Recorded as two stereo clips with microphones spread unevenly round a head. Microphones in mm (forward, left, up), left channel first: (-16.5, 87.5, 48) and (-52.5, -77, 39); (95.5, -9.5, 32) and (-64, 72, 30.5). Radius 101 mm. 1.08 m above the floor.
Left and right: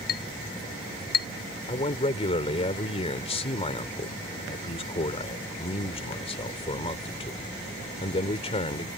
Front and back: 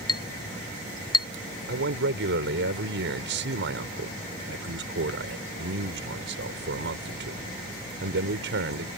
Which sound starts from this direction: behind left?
A man speaking, at 1.7 s.